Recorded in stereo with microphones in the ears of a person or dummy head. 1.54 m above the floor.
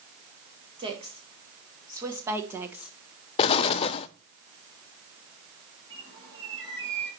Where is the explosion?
35° left (ahead or behind), 0.5 m.